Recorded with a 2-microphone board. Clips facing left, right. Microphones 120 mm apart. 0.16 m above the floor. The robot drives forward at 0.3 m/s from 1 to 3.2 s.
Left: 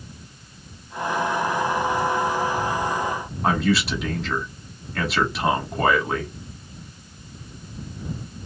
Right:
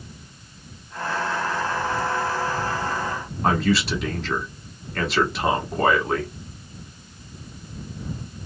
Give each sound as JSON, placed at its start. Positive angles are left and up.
{"t": 3.4, "sound": "a man speaking", "side_deg": 0, "distance_m": 1.0}